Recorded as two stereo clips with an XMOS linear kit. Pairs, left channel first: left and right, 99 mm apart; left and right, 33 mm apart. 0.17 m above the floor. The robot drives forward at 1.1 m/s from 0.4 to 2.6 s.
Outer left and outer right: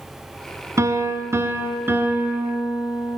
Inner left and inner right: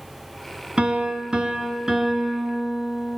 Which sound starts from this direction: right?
A piano, at 0.8 s.